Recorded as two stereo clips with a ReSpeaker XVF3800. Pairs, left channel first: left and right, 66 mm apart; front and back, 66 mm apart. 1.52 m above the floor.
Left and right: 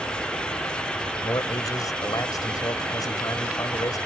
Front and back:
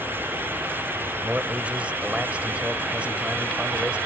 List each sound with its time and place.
1.2 s a man speaking: 110° left